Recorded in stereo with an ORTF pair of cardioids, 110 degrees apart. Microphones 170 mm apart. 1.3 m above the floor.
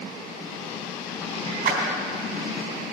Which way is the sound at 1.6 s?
60° right.